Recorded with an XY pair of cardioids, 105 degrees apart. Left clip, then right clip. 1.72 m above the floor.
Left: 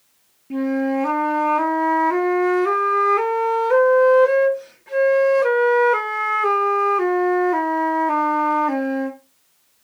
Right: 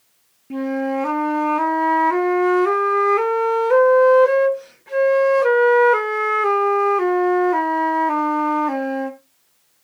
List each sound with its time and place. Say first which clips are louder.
0.5 s a flute: left 1 dB; 10° right, 0.6 m